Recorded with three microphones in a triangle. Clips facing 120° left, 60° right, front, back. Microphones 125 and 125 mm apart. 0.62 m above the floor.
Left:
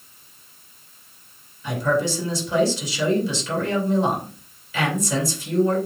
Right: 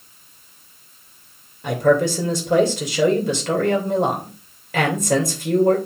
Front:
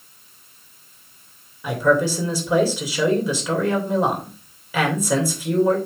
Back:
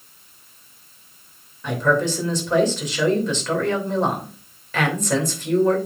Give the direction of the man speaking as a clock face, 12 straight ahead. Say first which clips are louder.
Right 5 dB, front 2 dB; 3 o'clock.